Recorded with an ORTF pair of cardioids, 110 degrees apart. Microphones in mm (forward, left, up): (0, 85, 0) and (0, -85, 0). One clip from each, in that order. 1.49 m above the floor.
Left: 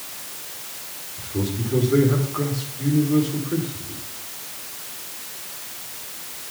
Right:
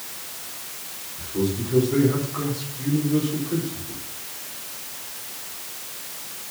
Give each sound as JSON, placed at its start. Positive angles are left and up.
{"t": 1.2, "sound": "a man speaking", "azimuth_deg": 15, "distance_m": 4.5}